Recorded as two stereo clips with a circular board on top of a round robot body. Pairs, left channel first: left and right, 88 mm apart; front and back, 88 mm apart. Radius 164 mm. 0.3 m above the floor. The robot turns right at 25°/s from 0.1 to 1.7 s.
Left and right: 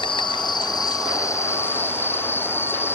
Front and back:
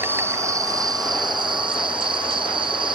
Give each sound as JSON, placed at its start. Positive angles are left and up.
{"t": 0.0, "sound": "an insect", "azimuth_deg": 115}